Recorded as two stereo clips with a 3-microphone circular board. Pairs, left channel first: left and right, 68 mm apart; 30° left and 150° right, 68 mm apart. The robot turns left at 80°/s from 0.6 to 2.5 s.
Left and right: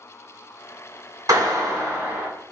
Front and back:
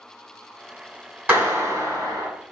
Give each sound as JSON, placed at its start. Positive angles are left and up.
{"t": 1.3, "sound": "a clap", "azimuth_deg": -90, "distance_m": 1.7}